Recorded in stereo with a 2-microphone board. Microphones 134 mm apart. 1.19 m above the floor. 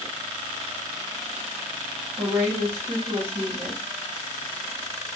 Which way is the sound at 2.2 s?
50° right (ahead or behind).